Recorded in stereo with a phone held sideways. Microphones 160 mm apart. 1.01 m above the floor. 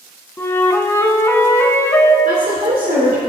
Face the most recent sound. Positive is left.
turn(degrees=-75)  # may be behind; listen again after turning